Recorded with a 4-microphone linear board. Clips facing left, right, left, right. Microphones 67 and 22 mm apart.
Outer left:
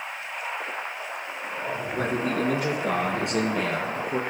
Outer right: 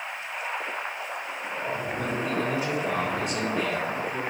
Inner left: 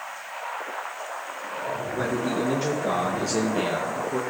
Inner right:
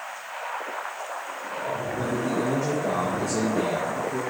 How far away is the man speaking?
About 4.5 m.